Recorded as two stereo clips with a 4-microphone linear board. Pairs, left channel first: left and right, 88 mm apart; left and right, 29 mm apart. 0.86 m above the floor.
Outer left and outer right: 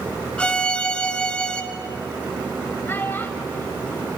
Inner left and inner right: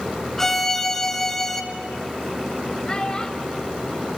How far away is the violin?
About 1.7 m.